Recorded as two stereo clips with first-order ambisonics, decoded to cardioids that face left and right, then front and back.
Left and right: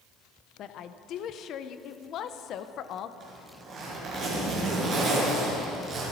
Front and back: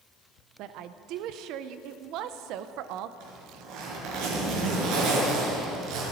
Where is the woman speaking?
140° left, 0.8 m.